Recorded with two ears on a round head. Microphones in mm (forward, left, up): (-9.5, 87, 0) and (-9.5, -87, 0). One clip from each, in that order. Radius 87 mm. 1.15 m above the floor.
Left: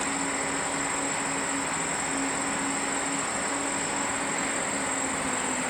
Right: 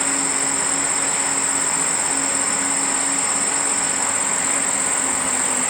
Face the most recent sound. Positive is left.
turn(degrees=-65)  # may be behind; listen again after turning